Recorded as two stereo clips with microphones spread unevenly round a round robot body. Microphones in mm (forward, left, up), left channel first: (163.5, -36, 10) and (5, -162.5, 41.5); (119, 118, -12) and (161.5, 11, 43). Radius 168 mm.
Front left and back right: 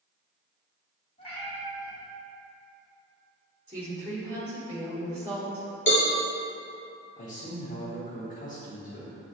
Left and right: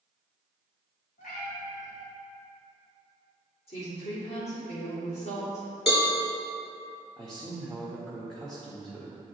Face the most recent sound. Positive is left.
turn(degrees=45)